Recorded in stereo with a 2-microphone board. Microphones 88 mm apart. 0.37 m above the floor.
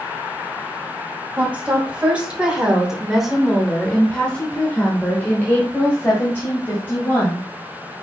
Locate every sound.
1.4 s a woman speaking: 15° right (ahead or behind), 1.8 m; by 7.4 s 30° left (ahead or behind), 2 m